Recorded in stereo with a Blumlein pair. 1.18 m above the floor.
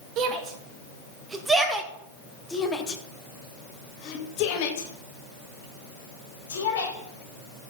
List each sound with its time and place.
0.2 s a shout: 30° right, 1.9 m; by 6.9 s 65° left, 3 m